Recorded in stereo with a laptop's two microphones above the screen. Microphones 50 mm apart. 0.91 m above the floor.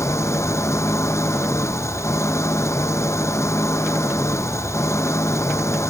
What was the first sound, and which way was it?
An engine running, 75° left (ahead or behind).